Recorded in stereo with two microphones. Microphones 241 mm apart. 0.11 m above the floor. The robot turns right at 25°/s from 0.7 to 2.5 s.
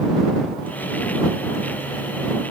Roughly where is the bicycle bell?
I don't hear a bicycle bell.